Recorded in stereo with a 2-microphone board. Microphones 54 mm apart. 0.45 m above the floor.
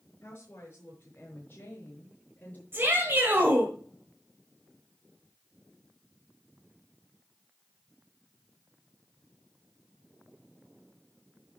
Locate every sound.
0.2 s a woman speaking: 45° left (ahead or behind), 5.5 m; by 2.6 s 35° left (ahead or behind), 5 m
2.7 s a shout: 40° right (ahead or behind), 2 m